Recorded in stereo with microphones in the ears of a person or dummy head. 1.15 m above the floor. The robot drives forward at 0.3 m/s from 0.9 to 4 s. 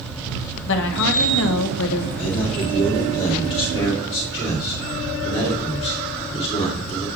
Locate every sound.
0.7 s a woman speaking: 70° left (ahead or behind), 0.7 m; by 2.1 s 80° left, 0.7 m
2.2 s a man speaking: 40° left (ahead or behind), 2 m; by 7.1 s 30° left (ahead or behind), 2.5 m